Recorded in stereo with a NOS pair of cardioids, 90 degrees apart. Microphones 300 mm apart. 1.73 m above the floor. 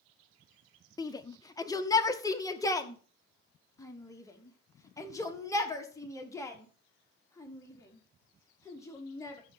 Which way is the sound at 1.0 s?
10° left.